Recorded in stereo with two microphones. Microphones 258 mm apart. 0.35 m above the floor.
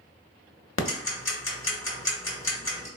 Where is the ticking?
55° left (ahead or behind), 0.7 m.